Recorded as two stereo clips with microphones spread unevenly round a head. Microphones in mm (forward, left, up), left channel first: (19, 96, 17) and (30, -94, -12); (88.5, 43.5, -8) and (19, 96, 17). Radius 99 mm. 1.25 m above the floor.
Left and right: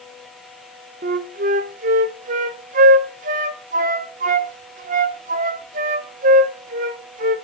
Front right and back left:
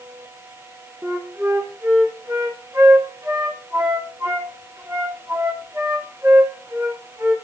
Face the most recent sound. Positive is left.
turn(degrees=-140)